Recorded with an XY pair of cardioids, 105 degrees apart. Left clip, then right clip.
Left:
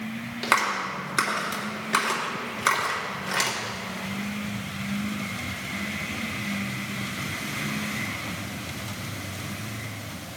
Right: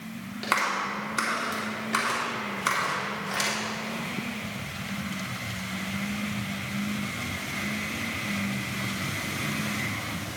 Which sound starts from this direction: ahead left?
A clap, at 0.4 s.